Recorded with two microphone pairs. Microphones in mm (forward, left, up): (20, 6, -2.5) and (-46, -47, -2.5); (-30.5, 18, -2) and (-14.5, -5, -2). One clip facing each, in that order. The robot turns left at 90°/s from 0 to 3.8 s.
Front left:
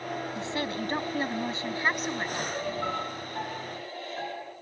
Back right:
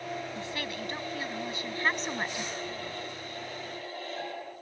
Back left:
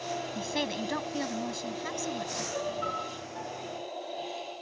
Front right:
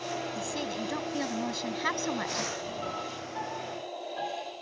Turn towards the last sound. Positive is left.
turn(degrees=-30)